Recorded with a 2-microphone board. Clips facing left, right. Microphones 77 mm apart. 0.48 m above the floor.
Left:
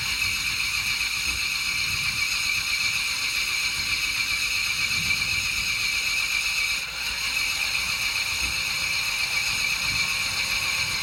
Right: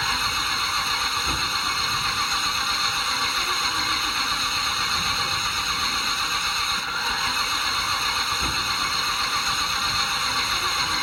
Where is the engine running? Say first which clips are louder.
Right 6 dB; 60° right (ahead or behind).